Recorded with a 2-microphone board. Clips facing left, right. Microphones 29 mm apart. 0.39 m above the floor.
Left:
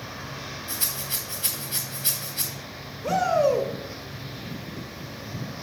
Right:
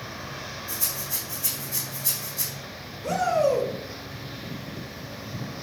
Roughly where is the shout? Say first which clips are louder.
Left 1 dB; centre.